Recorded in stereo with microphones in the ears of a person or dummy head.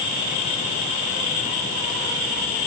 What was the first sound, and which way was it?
Only background noise.